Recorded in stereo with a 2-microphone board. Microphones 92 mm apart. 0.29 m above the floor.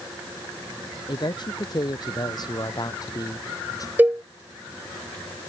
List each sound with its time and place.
1.1 s a man speaking: 50° left (ahead or behind); by 3.9 s 40° left (ahead or behind)
4.0 s a cowbell: 20° right (ahead or behind)